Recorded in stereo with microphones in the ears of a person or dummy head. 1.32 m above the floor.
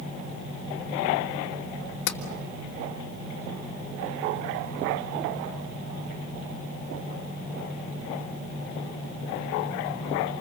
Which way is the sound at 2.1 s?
65° left (ahead or behind).